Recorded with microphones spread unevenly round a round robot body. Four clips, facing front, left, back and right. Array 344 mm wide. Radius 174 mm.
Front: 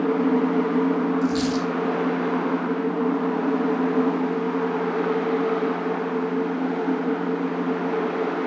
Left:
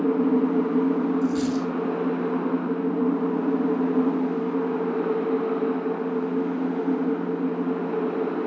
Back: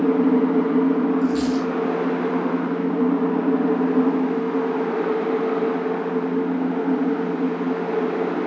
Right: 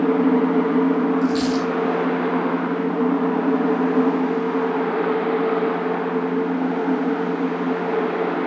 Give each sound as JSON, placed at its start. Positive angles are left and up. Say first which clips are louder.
{"t": 1.2, "sound": "a dropped coin", "louder": "right 4 dB, back 2 dB", "azimuth_deg": -10, "distance_m": 3.0}